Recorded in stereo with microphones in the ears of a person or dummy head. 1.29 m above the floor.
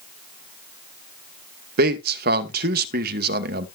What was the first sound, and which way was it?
A man speaking, 60° right (ahead or behind).